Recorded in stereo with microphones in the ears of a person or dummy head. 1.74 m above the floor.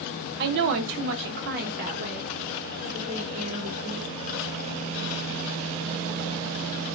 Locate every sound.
0.4 s a woman speaking: 55° right (ahead or behind), 0.7 m; by 4.1 s 25° right (ahead or behind), 1.9 m